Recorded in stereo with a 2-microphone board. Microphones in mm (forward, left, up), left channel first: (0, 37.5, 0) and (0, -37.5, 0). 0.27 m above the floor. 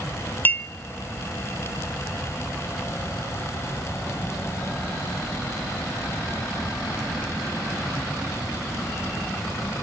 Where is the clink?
25° left (ahead or behind), 0.6 m.